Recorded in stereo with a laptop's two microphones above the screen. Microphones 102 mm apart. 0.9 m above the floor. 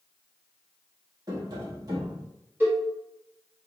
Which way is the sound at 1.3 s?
40° right (ahead or behind).